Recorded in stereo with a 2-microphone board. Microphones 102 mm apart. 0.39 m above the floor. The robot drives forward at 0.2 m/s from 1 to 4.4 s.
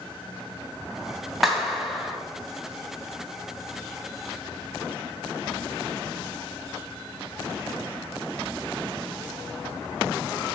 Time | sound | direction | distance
1.4 | a clap | centre (ahead or behind) | 2.5 m